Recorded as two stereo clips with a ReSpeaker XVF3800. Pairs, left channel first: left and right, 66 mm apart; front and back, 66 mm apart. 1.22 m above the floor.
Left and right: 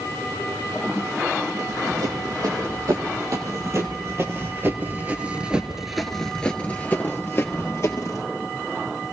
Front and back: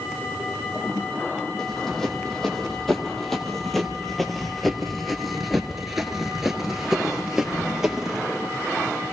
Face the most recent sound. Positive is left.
turn(degrees=100)